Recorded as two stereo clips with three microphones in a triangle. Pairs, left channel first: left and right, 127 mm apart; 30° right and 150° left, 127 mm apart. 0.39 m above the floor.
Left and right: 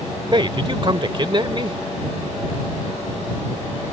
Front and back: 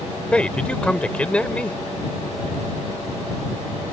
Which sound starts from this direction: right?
A man speaking, at 0.3 s.